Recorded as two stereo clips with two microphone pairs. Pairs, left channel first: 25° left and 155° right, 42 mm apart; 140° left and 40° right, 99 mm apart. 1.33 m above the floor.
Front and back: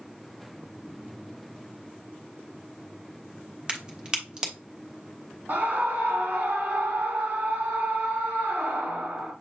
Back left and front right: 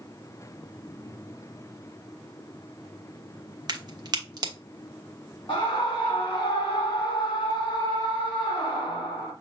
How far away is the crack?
About 1.2 m.